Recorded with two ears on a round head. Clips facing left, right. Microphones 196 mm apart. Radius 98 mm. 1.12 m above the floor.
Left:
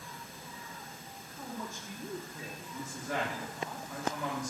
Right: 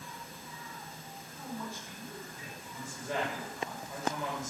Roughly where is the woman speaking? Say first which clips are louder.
Right 1 dB; right.